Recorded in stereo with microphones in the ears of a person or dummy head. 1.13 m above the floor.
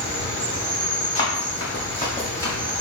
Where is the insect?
15° left (ahead or behind), 1.8 m.